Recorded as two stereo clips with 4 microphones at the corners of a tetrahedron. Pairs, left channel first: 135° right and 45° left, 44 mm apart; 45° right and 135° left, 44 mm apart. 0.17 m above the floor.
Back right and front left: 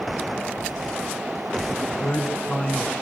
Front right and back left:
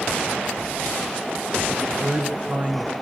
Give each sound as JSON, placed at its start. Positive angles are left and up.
{"t": 1.7, "sound": "a man speaking", "azimuth_deg": -150, "distance_m": 2.5}